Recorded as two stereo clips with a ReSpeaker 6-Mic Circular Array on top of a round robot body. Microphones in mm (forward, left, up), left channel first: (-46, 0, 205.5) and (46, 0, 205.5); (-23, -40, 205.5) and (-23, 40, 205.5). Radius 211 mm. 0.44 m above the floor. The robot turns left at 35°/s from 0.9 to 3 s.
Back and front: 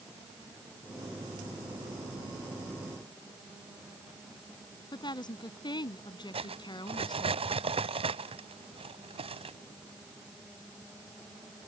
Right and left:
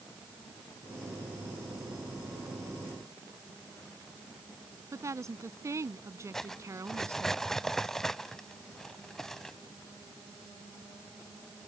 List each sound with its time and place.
4.9 s a woman speaking: 140° left
6.3 s cutlery clinking: 5° right